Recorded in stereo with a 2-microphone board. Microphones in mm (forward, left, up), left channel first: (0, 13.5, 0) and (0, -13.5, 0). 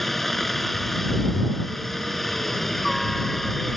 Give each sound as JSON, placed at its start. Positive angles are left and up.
{"t": 0.0, "sound": "a helicopter", "side_deg": 5}